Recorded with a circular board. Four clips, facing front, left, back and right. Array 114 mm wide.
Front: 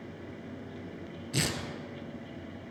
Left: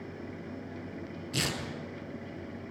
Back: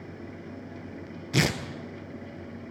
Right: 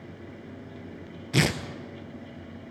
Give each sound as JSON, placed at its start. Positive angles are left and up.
{"t": 1.3, "sound": "tearing paper", "azimuth_deg": -125, "distance_m": 1.0}